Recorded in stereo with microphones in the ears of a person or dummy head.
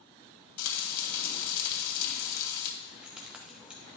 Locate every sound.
0.6 s frying: 65° left (ahead or behind), 2 m
2.8 s keys jangling: centre (ahead or behind), 1.1 m